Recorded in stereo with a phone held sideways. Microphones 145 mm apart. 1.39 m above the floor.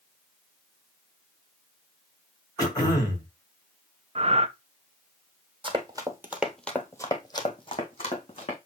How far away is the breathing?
About 0.5 m.